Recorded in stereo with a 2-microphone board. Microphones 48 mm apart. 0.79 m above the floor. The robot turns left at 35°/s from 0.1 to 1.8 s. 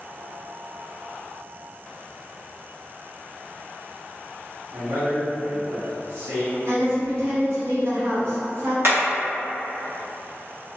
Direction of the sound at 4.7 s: 70° right (ahead or behind).